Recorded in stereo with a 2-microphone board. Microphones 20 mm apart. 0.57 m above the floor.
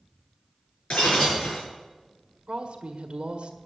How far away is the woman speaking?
About 1.6 m.